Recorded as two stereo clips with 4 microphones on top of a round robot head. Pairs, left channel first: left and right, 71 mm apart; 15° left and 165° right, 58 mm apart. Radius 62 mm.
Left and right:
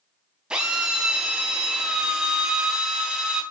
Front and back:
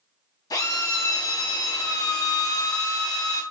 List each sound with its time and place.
0.5 s a drill: 10° right, 3.5 m